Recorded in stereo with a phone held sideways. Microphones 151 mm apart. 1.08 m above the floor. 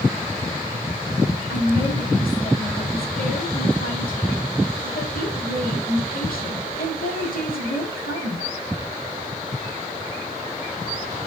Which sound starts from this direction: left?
A woman speaking, at 1.5 s.